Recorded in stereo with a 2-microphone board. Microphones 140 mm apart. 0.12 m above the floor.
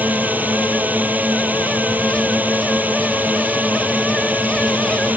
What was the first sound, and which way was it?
A drone, 10° right (ahead or behind).